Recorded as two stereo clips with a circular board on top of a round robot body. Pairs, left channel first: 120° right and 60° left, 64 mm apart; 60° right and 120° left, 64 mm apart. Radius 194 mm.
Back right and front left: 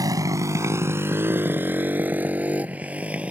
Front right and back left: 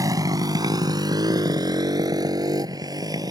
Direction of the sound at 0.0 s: 90° left.